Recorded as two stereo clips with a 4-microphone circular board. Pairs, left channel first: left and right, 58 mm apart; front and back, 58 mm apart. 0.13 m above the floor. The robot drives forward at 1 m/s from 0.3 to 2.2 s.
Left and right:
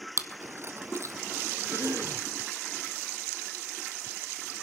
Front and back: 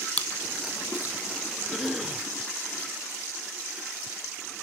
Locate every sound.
0.2 s chewing: 65° right, 0.7 m; by 1.1 s 130° right, 0.8 m
1.7 s a cough: 90° right, 3.5 m; by 2.3 s 100° right, 3.5 m